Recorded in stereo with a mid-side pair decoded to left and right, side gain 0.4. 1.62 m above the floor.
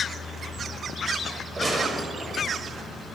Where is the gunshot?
30° right, 6.5 m.